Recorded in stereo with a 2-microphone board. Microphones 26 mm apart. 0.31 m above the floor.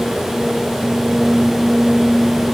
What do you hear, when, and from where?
Only background noise.